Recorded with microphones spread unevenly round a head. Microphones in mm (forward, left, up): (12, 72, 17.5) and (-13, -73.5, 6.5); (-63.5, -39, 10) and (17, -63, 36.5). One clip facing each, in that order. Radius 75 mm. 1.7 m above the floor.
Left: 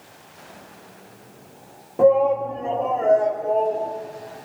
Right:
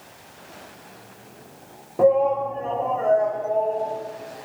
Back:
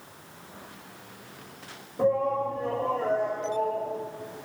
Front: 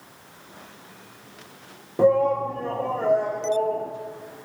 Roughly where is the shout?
Ahead.